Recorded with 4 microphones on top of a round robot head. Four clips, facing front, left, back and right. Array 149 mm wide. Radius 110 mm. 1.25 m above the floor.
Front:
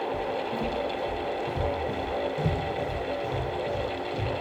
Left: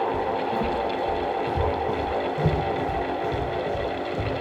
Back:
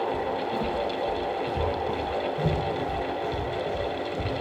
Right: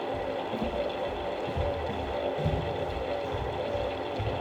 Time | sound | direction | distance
0.1 | footsteps | 90° left | 1.8 m